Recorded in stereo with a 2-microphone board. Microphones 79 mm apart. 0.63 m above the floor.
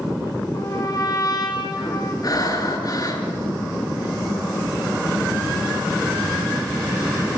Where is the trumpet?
50° left (ahead or behind), 4 m.